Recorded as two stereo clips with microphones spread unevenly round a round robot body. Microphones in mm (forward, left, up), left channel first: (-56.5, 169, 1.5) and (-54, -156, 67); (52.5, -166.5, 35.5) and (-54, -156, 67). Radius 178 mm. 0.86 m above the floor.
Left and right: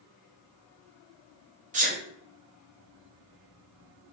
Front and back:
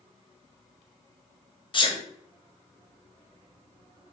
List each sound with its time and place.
1.7 s a sneeze: 15° right, 0.9 m